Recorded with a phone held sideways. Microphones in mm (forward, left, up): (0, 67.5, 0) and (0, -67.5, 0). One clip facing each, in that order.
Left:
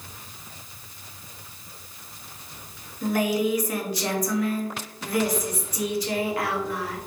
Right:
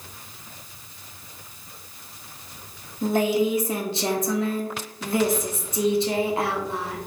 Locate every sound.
3.0 s a woman speaking: 25° right (ahead or behind), 0.6 m